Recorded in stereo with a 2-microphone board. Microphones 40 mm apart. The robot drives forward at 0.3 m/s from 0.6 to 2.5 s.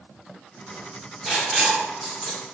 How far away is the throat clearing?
No throat clearing in this recording.